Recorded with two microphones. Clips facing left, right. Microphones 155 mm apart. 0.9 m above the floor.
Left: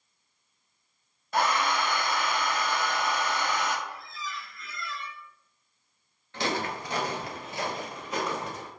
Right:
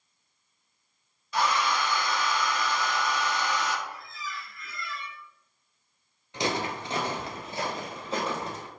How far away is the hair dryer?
About 0.6 m.